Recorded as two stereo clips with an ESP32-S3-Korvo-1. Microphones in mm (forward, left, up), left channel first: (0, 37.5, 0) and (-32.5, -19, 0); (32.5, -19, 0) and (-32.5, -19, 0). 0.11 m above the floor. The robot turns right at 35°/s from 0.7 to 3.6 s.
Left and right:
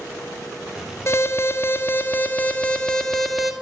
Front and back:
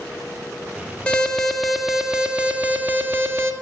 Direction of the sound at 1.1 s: 65° left.